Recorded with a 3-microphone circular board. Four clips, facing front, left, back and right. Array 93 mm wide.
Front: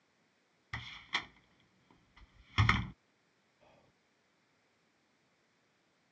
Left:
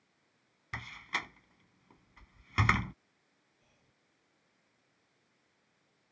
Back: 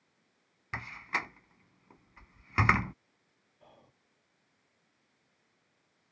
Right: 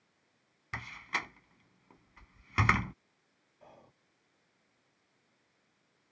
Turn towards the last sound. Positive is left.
turn(degrees=-110)